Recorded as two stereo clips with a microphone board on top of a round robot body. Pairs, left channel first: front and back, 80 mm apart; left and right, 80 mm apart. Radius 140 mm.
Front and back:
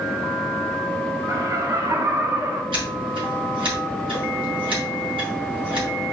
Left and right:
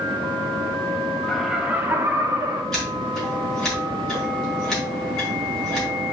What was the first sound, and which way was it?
Laughter, 175° left.